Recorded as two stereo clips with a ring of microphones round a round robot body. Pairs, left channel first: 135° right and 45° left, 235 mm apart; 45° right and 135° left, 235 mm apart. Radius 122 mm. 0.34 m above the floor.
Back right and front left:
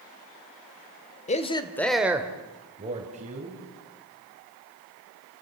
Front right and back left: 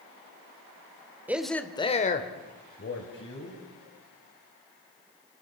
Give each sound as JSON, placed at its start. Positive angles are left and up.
{"t": 1.3, "sound": "a man speaking", "azimuth_deg": -150, "distance_m": 1.5}